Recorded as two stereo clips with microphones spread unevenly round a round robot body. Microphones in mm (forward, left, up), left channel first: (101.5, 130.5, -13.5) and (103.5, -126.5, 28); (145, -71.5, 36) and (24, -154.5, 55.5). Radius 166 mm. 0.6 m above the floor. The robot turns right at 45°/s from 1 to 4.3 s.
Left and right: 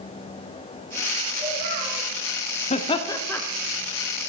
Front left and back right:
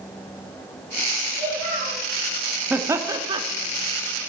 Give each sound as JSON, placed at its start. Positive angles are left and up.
{"t": 1.4, "sound": "a child speaking", "azimuth_deg": -150, "distance_m": 3.0}
{"t": 2.7, "sound": "laughter", "azimuth_deg": 130, "distance_m": 0.8}